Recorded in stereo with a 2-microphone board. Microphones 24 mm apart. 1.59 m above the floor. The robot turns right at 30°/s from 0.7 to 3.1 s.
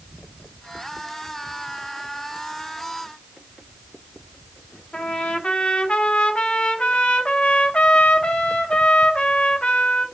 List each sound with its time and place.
4.9 s a trumpet: 40° left (ahead or behind), 0.5 m